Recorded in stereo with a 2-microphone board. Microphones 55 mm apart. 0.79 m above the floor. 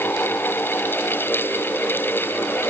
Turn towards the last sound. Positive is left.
No sound to turn to.